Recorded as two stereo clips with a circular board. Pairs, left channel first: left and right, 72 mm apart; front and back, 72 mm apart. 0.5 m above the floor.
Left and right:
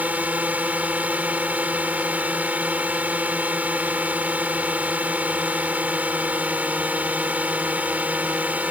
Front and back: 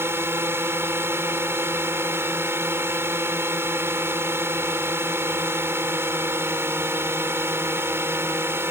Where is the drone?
145° right.